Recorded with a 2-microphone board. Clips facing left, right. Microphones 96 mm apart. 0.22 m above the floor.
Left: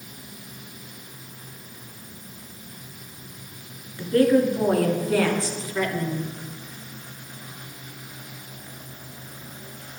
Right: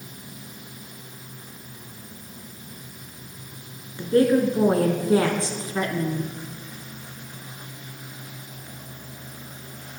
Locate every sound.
4.0 s a woman speaking: 25° right (ahead or behind), 3 m; by 6.2 s 30° right (ahead or behind), 1.9 m